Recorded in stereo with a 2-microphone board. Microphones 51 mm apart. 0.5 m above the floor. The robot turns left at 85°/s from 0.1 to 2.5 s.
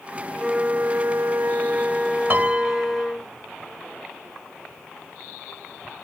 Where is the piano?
40° right (ahead or behind); by 3.1 s 25° right (ahead or behind).